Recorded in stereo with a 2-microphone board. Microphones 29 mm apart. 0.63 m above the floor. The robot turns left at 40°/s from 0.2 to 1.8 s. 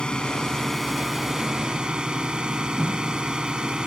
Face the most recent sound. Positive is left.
turn(degrees=-30)